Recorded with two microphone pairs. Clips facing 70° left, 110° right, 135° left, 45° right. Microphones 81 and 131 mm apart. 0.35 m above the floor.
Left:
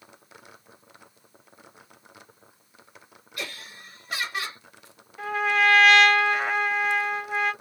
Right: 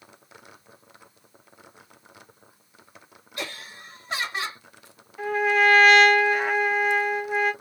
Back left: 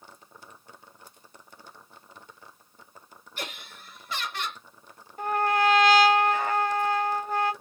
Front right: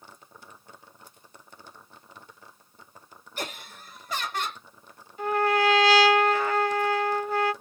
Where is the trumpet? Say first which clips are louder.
Right 2 dB, front right 1 dB; 155° left, 1.2 m.